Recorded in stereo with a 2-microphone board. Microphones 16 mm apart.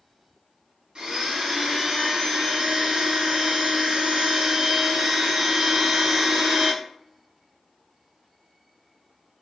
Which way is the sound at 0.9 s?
60° right (ahead or behind).